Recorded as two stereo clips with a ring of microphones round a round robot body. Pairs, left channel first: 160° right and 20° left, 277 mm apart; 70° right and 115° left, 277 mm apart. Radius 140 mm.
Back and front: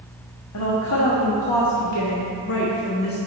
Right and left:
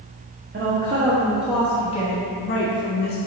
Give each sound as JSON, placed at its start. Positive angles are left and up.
{"t": 0.5, "sound": "a woman speaking", "azimuth_deg": 170, "distance_m": 1.5}